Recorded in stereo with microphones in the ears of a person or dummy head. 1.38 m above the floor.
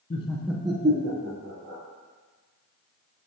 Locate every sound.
0.1 s laughter: 35° left (ahead or behind), 0.7 m; by 1.8 s 70° right (ahead or behind), 1.5 m